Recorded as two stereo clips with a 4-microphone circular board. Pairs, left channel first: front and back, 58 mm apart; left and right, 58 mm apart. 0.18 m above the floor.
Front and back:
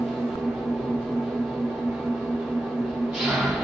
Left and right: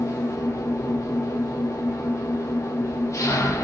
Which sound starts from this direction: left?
An engine running, at 0.0 s.